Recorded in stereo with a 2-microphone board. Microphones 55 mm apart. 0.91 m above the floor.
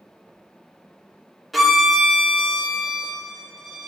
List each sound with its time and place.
1.5 s a violin: centre (ahead or behind), 0.5 m